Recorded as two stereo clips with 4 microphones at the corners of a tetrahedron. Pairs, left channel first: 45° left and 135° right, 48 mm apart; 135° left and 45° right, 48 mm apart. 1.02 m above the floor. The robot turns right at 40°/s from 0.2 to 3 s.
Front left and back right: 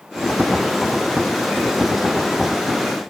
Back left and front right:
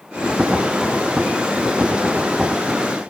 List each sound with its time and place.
Only background noise.